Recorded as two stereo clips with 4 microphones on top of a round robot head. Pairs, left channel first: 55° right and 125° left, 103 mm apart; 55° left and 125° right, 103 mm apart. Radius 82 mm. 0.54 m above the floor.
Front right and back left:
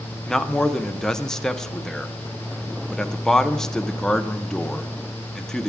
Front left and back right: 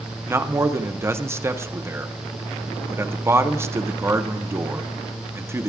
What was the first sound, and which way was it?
A man speaking, 135° right.